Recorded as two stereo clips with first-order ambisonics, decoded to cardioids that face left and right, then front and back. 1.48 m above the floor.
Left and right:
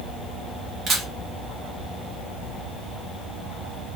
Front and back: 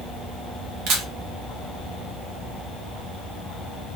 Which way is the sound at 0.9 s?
150° right.